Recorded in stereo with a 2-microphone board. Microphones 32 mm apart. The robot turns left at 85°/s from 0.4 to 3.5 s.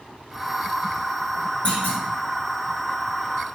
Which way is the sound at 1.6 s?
45° left (ahead or behind).